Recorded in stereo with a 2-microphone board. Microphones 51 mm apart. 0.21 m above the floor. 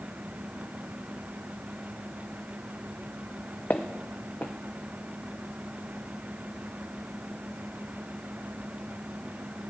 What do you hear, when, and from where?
3.7 s footsteps: 40° left (ahead or behind), 0.7 m